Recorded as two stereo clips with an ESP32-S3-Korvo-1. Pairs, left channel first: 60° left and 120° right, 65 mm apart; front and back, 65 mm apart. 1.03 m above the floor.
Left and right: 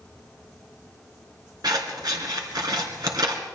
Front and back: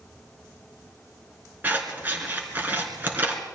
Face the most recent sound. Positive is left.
turn(degrees=-120)